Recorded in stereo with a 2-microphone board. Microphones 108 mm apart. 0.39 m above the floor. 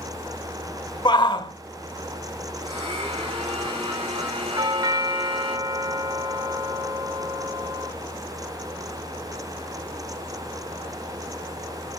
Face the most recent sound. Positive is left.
turn(degrees=-35)  # may be behind; listen again after turning